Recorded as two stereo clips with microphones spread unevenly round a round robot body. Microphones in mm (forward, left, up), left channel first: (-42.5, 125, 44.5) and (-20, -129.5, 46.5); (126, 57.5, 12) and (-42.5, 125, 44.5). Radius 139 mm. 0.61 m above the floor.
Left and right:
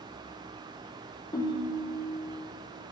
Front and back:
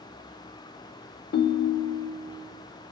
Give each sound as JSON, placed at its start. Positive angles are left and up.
{"t": 1.3, "sound": "a ringtone", "azimuth_deg": 20, "distance_m": 0.6}